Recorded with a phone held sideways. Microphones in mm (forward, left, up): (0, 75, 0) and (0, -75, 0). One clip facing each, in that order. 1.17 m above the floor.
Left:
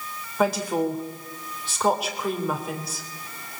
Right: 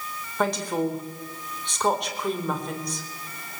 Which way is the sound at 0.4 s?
5° left (ahead or behind).